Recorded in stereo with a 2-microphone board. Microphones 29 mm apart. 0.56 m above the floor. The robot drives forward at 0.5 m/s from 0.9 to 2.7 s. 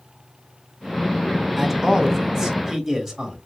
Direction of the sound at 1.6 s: 15° right (ahead or behind).